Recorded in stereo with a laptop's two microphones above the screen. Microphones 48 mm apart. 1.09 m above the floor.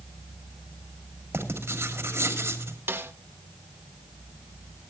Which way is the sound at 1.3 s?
50° right (ahead or behind).